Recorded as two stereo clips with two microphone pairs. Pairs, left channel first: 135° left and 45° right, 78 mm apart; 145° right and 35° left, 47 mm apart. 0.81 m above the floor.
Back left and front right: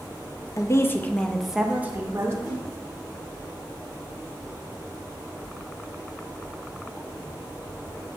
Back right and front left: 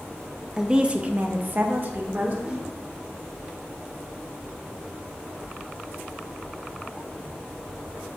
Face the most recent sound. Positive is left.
turn(degrees=105)